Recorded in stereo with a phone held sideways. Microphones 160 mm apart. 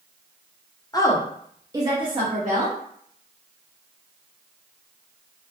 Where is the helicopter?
I don't hear a helicopter.